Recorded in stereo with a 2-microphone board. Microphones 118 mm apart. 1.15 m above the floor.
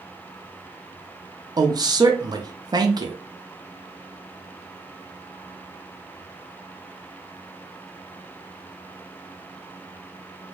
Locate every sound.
1.6 s a woman speaking: 35° right (ahead or behind), 0.5 m